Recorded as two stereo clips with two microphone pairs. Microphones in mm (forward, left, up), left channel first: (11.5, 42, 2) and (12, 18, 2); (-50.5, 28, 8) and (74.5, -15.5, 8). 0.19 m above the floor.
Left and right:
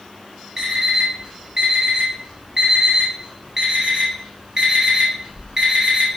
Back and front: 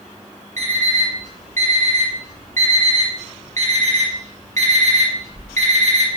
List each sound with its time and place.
0.6 s an alarm clock: 25° right, 1.5 m